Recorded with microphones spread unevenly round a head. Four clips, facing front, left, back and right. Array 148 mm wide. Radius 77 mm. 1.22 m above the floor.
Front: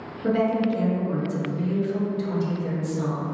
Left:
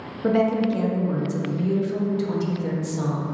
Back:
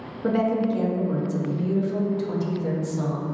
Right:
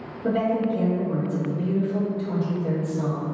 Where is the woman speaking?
125° left, 0.6 m.